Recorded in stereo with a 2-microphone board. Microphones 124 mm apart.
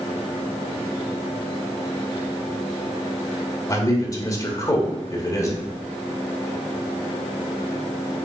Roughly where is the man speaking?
Left.